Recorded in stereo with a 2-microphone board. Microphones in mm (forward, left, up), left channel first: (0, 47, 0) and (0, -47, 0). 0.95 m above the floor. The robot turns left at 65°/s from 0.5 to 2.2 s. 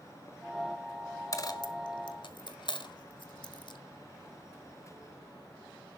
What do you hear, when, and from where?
1.3 s a dropped coin: 35° left (ahead or behind), 1.1 m; by 3.8 s 60° left (ahead or behind), 1.1 m